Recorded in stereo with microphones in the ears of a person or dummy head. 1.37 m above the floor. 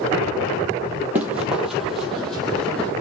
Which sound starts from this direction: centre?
Running footsteps, at 1.1 s.